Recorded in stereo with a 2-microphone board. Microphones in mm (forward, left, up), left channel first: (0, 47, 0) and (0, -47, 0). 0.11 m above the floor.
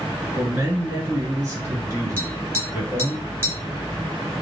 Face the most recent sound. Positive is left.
turn(degrees=-25)  # may be behind; listen again after turning